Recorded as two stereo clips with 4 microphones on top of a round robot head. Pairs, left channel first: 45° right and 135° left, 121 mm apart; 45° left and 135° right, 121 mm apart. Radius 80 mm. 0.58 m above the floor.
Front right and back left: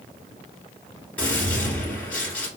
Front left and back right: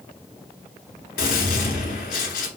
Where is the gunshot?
35° left, 1.7 m.